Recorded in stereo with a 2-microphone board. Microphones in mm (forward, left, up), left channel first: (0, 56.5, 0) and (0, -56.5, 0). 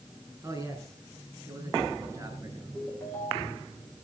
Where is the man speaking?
25° right (ahead or behind), 4.5 m.